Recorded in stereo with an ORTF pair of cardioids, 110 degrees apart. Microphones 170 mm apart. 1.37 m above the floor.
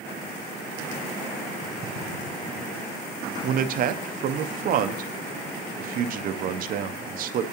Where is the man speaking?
55° right, 0.6 m.